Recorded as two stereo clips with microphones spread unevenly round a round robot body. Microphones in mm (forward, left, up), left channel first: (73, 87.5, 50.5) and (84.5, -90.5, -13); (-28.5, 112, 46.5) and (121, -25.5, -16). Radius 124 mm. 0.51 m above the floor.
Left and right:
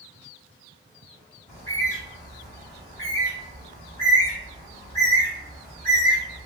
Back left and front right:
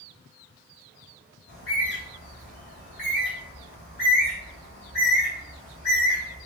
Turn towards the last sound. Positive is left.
turn(degrees=-175)